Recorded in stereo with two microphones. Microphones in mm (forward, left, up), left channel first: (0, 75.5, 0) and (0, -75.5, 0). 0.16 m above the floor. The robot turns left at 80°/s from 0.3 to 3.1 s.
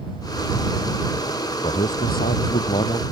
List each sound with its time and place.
1.6 s a man speaking: 135° left; by 3.0 s 25° left